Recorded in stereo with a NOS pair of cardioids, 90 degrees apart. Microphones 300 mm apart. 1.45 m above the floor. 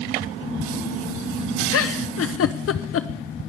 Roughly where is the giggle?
Ahead left.